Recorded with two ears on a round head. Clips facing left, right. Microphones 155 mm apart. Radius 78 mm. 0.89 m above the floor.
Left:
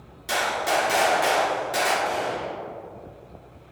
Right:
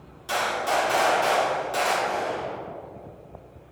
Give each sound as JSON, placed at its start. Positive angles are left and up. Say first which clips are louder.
{"t": 0.3, "sound": "a gunshot", "louder": "left 1 dB", "side_deg": 15, "distance_m": 2.5}
{"t": 2.0, "sound": "a gunshot", "louder": "left 1 dB", "side_deg": 50, "distance_m": 4.0}